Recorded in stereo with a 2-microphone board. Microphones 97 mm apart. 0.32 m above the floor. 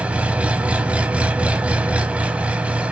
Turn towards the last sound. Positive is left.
turn(degrees=-15)  # may be behind; listen again after turning